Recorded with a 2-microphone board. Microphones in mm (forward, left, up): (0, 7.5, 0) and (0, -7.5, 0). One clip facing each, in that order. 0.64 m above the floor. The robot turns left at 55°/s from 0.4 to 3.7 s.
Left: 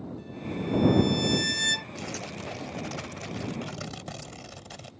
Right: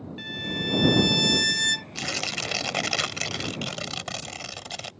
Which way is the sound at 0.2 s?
100° right.